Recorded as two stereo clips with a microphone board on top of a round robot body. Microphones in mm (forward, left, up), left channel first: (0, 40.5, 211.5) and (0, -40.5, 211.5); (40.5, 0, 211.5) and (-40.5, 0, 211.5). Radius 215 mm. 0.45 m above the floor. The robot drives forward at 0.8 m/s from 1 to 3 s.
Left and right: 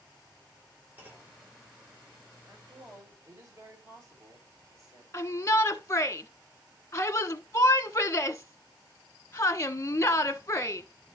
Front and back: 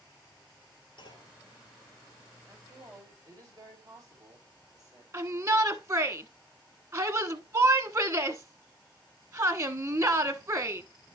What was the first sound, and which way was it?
A clunk, 25° right.